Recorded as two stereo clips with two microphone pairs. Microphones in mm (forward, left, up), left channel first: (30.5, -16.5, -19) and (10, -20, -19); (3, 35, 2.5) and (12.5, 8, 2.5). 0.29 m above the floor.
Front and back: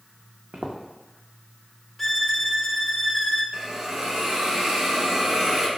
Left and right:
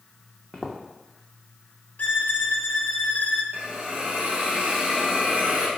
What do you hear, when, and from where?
0.5 s footsteps: 160° right, 0.8 m
2.0 s a violin: 95° left, 0.6 m
3.5 s a hiss: 110° right, 0.8 m